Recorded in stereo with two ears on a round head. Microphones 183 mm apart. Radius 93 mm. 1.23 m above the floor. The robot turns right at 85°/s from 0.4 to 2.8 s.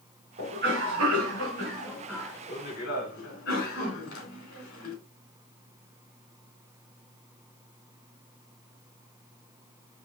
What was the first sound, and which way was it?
A cough, 140° right.